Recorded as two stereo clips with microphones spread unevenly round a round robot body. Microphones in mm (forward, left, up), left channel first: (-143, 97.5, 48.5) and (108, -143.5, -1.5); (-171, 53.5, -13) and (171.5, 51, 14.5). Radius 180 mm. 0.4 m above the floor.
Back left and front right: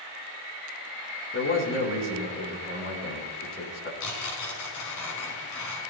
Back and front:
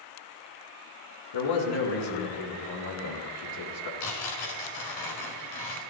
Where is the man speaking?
165° right, 3.5 m.